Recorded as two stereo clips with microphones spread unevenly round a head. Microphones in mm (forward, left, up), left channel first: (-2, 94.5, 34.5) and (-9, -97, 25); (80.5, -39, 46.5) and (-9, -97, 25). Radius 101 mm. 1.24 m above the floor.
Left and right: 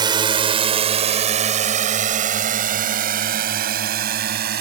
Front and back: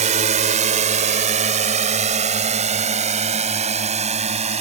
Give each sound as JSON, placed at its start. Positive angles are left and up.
{"t": 0.0, "sound": "a drone", "azimuth_deg": -160}